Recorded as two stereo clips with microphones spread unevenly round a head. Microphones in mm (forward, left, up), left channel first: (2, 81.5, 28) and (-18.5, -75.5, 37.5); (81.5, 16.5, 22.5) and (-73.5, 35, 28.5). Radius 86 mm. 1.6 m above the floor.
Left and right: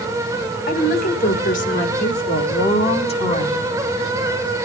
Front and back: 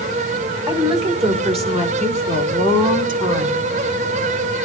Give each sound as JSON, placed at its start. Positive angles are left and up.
{"t": 0.7, "sound": "a woman speaking", "azimuth_deg": 115, "distance_m": 4.5}